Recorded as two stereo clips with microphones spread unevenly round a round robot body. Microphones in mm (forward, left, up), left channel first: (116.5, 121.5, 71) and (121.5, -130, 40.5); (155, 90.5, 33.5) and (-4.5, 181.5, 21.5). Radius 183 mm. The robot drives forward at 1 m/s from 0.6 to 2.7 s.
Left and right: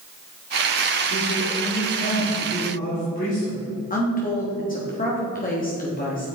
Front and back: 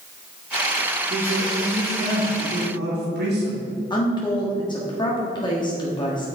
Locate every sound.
1.1 s a man speaking: 130° left, 2 m; by 3.7 s 155° left, 3 m
3.9 s a woman speaking: 35° left, 1.5 m